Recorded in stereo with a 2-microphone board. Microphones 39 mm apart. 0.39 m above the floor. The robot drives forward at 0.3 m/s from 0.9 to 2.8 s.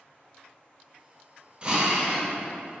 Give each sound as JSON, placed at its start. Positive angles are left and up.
{"t": 1.6, "sound": "a drill", "side_deg": -30, "distance_m": 0.6}